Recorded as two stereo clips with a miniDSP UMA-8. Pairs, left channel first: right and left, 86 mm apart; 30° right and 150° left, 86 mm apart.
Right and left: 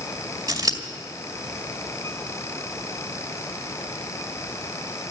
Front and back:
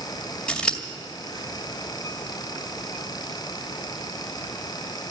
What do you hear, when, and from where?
0.5 s scissors: 50° left, 2 m